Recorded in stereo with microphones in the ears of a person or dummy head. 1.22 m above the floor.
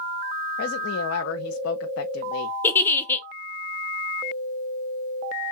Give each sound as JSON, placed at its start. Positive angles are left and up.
{"t": 0.6, "sound": "a woman speaking", "side_deg": 85, "distance_m": 0.6}
{"t": 2.6, "sound": "a giggle", "side_deg": 15, "distance_m": 1.0}